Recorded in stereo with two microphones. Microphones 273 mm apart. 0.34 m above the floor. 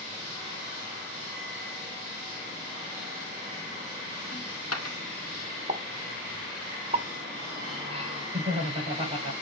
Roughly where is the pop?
Right.